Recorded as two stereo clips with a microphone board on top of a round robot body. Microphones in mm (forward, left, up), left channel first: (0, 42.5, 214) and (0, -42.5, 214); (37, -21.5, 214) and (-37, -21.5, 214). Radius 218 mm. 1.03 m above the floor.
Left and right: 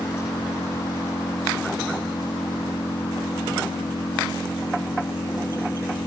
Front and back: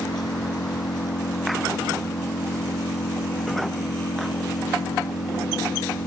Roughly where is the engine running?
Ahead left.